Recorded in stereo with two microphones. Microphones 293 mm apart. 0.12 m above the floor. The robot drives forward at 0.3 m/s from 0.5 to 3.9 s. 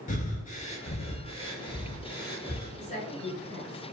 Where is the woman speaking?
25° left (ahead or behind), 1.4 m; by 3.9 s 20° left (ahead or behind), 1.5 m.